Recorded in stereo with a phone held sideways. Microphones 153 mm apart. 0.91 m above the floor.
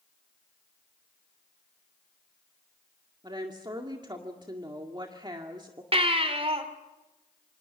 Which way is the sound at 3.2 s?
30° right (ahead or behind).